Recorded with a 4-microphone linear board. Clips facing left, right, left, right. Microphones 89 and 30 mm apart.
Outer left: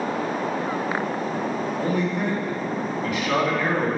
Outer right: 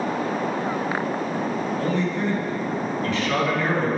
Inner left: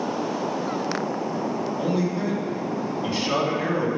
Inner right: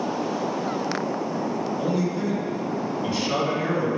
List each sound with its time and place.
1.8 s a man speaking: 10° left (ahead or behind), 1.9 m